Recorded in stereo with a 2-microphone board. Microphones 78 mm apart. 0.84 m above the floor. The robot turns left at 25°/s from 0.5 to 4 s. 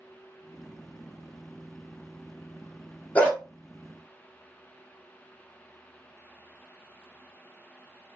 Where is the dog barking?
20° left (ahead or behind), 1.3 m; by 3.4 s 15° left (ahead or behind), 1.3 m.